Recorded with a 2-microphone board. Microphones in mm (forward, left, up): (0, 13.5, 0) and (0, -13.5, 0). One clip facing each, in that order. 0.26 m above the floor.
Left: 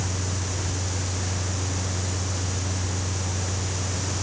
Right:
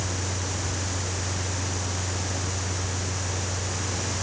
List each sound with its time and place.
Only background noise.